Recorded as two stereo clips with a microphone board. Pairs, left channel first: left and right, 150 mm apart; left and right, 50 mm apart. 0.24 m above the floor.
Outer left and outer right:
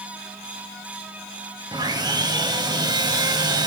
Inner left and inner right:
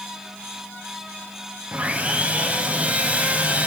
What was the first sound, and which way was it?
Sawing, 25° right (ahead or behind).